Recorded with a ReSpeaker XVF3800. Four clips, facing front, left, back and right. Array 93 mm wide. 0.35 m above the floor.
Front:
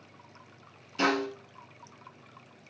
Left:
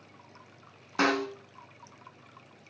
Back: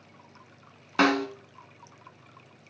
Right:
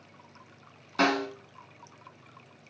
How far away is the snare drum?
About 2 m.